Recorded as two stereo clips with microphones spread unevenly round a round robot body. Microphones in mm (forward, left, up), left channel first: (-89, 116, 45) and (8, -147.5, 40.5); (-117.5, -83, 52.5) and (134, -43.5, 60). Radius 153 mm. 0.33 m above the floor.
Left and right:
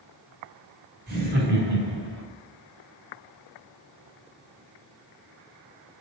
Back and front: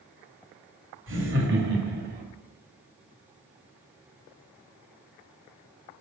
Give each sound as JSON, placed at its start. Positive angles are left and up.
{"t": 1.1, "sound": "laughter", "azimuth_deg": -20, "distance_m": 2.5}